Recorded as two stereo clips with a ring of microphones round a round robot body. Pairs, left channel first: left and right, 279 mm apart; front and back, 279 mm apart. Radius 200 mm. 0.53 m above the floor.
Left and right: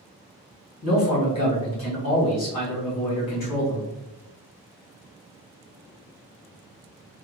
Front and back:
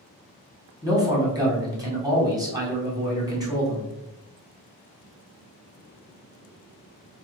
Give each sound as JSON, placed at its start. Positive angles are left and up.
{"t": 0.8, "sound": "a man speaking", "azimuth_deg": 105, "distance_m": 1.5}